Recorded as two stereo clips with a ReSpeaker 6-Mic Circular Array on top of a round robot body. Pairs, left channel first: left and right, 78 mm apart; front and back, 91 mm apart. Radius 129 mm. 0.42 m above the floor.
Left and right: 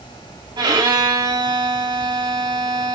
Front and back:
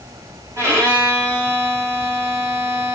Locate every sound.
0.6 s a violin: 120° right, 3.5 m